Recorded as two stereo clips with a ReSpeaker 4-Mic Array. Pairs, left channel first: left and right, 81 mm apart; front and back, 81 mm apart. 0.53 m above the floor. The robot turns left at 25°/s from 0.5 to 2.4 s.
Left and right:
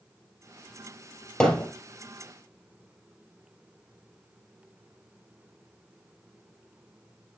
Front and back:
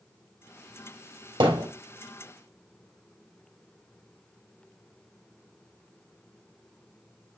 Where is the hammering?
170° left, 3.5 m; by 1.7 s 160° left, 3.5 m.